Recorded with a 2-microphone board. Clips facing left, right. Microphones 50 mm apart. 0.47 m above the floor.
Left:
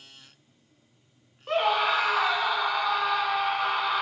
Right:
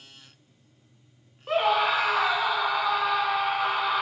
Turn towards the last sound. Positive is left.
turn(degrees=0)  # may be behind; listen again after turning